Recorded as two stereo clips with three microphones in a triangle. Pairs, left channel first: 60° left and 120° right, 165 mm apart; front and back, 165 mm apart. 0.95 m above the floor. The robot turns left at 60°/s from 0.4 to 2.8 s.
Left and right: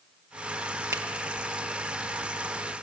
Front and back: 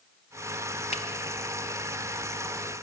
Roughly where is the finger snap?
Ahead right.